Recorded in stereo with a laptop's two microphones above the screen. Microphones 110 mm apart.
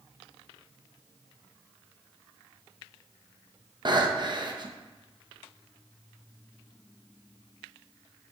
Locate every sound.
3.9 s breathing: 40° right (ahead or behind), 0.8 m